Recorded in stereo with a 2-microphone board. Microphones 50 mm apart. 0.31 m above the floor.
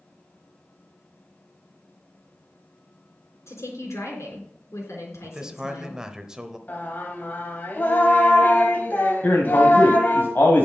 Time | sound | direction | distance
3.5 | a woman speaking | 75° left (ahead or behind) | 3.5 m
5.2 | a man speaking | 15° right (ahead or behind) | 0.9 m
6.7 | singing | 40° left (ahead or behind) | 1.5 m
9.2 | a man speaking | 40° left (ahead or behind) | 2.0 m